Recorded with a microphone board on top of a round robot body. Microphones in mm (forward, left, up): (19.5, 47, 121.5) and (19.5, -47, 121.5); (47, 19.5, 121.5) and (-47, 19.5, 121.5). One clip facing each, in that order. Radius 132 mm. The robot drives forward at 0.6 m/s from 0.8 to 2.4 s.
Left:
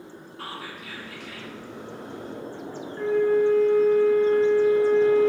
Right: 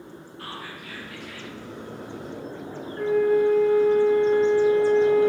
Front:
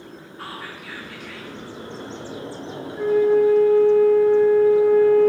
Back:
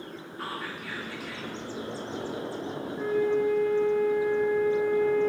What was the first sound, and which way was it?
Whispering, 90° left.